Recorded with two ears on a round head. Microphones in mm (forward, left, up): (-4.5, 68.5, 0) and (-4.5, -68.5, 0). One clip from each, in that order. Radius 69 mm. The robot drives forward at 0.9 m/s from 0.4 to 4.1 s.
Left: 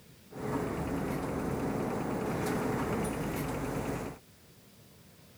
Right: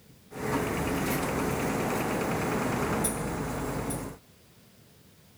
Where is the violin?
No violin in this recording.